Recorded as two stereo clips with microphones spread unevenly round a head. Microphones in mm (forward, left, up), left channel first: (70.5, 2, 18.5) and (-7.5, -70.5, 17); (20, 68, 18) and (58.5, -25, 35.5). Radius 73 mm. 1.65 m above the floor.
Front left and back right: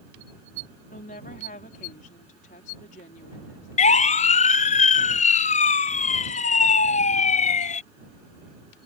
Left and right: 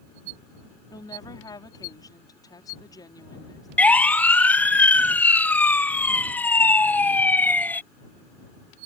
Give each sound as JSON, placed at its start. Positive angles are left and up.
{"t": 0.9, "sound": "a woman speaking", "azimuth_deg": 60}
{"t": 3.8, "sound": "a siren", "azimuth_deg": 35}